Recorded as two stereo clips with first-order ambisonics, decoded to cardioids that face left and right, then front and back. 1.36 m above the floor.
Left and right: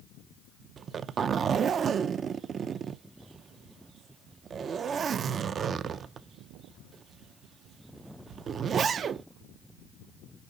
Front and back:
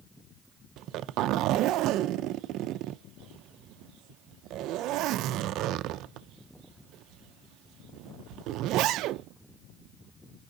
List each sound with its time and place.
0.8 s a zipper: 150° right, 0.5 m